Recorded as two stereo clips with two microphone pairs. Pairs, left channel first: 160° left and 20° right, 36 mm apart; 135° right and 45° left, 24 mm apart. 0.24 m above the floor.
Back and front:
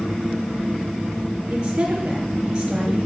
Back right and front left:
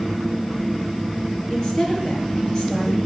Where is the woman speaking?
85° right, 5 m.